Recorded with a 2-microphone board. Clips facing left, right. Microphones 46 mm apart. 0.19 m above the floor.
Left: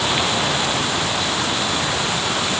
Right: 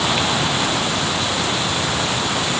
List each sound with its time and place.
Only background noise.